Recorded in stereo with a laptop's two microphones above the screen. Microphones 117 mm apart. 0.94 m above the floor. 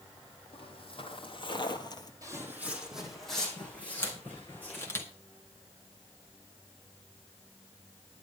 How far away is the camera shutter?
About 1.6 m.